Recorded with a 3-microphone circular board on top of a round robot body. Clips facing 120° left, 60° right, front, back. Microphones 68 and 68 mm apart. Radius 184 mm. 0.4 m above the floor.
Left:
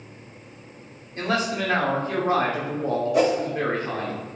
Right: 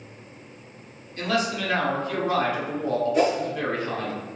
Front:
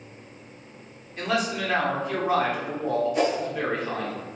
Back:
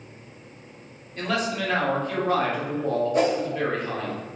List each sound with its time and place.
1.2 s a man speaking: 80° left, 1.3 m
3.1 s a whoosh: 135° left, 1.5 m